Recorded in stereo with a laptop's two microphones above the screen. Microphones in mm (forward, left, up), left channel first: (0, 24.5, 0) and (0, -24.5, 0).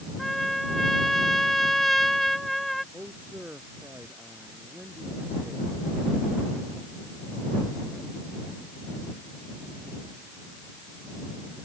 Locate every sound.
0.2 s a trumpet: 5° left (ahead or behind)
2.9 s a man speaking: 40° right (ahead or behind)